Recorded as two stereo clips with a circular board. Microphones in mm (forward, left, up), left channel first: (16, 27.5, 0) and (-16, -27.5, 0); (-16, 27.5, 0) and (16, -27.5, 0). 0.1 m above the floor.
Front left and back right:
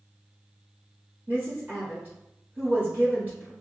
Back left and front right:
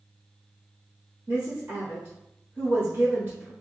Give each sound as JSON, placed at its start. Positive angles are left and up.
{"t": 1.3, "sound": "a woman speaking", "azimuth_deg": -90, "distance_m": 1.6}